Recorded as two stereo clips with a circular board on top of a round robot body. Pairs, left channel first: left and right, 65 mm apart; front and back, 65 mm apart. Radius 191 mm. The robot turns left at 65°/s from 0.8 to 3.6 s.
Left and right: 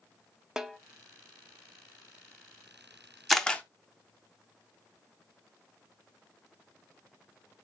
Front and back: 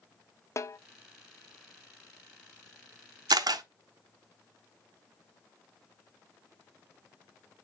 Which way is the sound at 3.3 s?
Straight behind.